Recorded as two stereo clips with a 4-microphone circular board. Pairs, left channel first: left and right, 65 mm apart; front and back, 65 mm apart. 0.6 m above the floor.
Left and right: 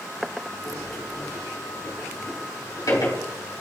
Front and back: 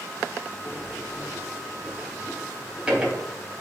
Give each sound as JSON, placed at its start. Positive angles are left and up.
{"t": 0.6, "sound": "a sliding door", "azimuth_deg": 110, "distance_m": 3.5}